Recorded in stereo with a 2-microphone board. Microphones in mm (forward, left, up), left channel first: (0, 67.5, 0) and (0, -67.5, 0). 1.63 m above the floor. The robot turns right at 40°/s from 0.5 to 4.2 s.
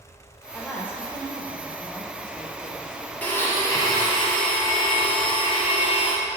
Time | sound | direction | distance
0.5 | a woman speaking | 15° left | 0.6 m
3.2 | a blender | 15° left | 1.0 m